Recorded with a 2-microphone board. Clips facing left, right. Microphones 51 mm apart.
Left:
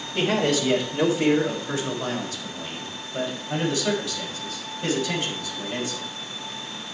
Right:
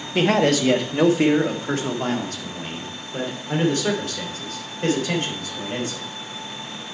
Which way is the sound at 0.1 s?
75° right (ahead or behind).